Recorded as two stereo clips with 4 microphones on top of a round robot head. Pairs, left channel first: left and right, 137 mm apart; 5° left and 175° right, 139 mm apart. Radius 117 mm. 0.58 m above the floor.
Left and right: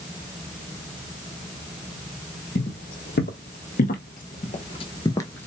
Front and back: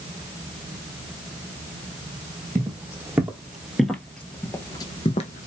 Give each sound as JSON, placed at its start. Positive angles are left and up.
{"t": 2.5, "sound": "footsteps", "azimuth_deg": 110, "distance_m": 1.6}